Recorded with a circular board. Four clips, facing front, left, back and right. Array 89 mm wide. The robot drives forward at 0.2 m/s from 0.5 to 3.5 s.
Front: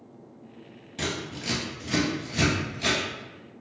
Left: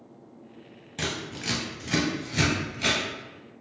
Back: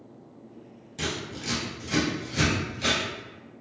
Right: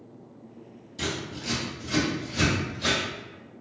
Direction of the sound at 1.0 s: 80° left.